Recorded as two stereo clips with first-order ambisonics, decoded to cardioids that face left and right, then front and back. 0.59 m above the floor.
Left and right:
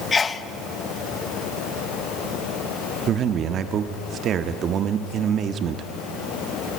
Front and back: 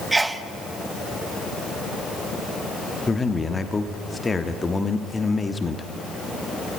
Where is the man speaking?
65° right, 1.2 m.